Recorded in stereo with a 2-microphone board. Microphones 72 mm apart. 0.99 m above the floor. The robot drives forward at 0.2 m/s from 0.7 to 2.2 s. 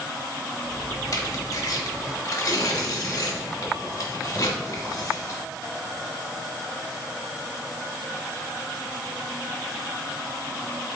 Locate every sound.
1.1 s tearing paper: 50° left (ahead or behind), 1.1 m